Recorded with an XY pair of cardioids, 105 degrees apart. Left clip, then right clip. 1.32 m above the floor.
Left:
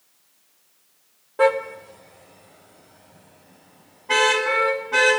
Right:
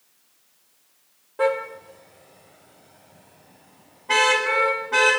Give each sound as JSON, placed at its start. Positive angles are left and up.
{"t": 1.4, "sound": "a car horn", "azimuth_deg": 30, "distance_m": 2.5}